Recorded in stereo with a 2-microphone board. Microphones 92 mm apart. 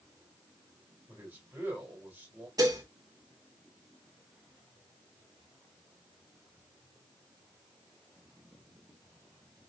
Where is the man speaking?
15° right (ahead or behind), 3 m.